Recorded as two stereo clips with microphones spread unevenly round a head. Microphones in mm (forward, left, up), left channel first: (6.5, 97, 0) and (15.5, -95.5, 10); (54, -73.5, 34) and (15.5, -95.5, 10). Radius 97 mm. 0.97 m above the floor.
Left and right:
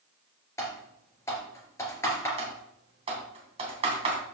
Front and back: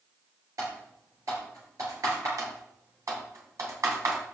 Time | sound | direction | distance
0.6 | typing on a keyboard | 170° left | 3.5 m
2.4 | typing on a keyboard | 150° right | 3 m